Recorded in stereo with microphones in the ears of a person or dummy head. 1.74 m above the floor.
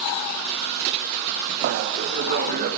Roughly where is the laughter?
Right.